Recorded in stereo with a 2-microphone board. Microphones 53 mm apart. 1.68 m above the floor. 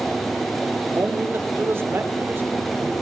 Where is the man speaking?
50° right (ahead or behind), 3.5 m; by 2.9 s 45° right (ahead or behind), 6 m.